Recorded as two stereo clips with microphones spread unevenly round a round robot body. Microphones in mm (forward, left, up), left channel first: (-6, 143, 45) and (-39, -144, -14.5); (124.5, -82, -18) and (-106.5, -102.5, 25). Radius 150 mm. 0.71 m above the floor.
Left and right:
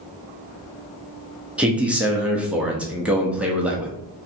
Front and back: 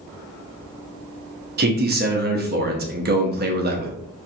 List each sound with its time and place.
1.6 s a man speaking: 155° right, 0.8 m